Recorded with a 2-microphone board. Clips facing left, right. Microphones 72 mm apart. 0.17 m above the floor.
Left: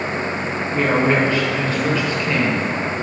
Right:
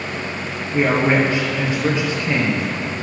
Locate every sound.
0.7 s a woman speaking: 20° right (ahead or behind), 4 m